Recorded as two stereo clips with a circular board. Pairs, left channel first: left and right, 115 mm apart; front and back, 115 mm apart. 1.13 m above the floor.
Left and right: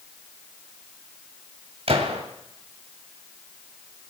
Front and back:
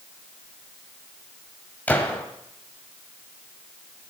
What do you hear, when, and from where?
1.9 s a gunshot: 75° right, 2.0 m